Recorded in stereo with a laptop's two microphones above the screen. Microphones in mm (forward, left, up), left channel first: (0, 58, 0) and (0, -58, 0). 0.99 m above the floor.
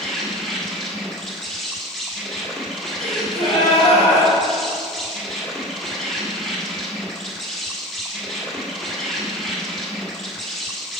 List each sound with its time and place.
0.0 s an insect: 5° left (ahead or behind), 1.7 m
3.0 s a gasp: 55° left (ahead or behind), 2.5 m